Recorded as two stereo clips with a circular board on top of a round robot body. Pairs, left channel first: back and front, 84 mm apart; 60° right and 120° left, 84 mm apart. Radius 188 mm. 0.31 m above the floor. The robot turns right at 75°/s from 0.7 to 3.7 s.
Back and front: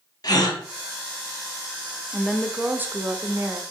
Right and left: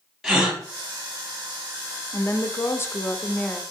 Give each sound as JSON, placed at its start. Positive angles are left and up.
{"t": 0.2, "sound": "a gasp", "azimuth_deg": -155, "distance_m": 2.0}
{"t": 2.1, "sound": "a woman speaking", "azimuth_deg": -95, "distance_m": 1.1}